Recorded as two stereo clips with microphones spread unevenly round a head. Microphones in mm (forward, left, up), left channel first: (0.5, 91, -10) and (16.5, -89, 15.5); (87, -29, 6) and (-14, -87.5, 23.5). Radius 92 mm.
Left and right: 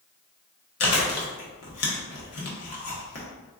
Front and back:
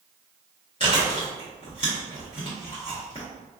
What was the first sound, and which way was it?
Chewing, 95° left.